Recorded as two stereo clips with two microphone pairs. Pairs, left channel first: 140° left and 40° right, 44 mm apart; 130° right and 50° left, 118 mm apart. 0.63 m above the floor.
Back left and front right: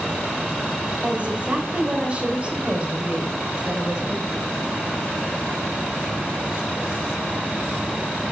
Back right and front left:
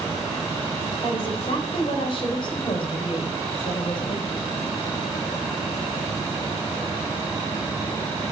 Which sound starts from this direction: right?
A woman speaking, at 1.0 s.